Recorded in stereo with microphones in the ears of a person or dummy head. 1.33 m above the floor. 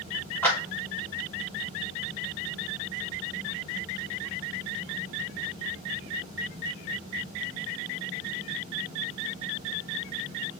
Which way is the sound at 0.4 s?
10° left (ahead or behind).